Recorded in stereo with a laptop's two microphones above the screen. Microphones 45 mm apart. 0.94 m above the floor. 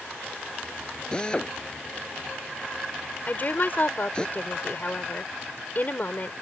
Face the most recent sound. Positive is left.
turn(degrees=45)  # may be behind; listen again after turning